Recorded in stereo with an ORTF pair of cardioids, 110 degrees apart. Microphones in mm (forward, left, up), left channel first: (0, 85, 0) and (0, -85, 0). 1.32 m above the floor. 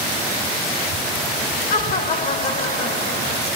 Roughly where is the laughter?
Ahead left.